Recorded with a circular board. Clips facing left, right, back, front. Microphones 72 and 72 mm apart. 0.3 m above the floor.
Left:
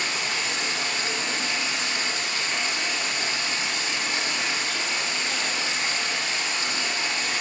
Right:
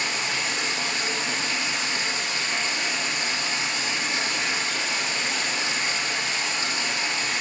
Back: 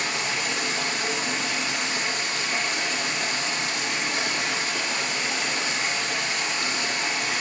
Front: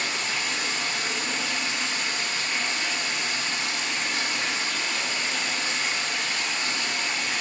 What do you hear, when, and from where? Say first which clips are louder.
0.0 s running water: right 1 dB, back 2 dB; 150° right, 4 m